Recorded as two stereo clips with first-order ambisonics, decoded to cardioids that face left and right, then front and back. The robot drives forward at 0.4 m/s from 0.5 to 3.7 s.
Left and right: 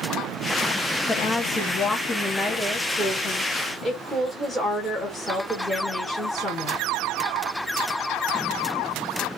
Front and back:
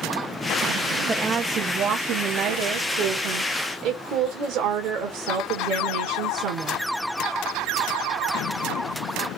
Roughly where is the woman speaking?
Behind left.